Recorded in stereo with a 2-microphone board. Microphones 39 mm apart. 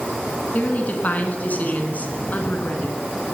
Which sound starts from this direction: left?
A woman speaking, at 0.5 s.